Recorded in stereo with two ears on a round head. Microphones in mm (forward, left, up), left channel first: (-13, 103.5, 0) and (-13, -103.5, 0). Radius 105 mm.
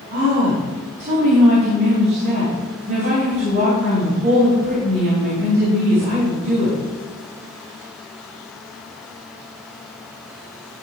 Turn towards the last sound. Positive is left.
turn(degrees=-65)  # may be behind; listen again after turning